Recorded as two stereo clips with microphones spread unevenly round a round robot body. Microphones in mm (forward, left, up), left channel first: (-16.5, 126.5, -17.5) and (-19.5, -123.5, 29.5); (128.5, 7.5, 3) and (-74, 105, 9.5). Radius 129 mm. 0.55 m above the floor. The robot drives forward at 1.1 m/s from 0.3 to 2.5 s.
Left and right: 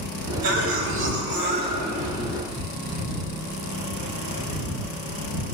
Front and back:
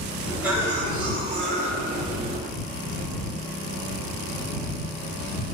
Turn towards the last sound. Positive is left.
turn(degrees=-150)